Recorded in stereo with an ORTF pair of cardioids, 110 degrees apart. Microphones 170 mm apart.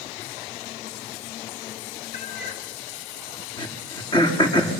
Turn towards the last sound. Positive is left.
turn(degrees=25)